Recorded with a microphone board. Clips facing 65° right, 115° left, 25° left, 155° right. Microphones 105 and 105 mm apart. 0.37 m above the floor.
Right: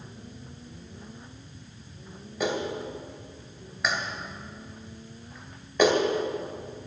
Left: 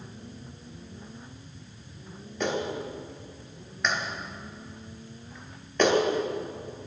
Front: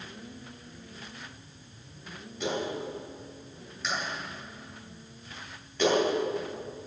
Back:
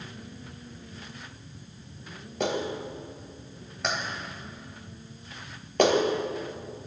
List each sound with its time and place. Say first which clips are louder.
2.4 s a clap: even, back 2 dB; 150° right, 2 m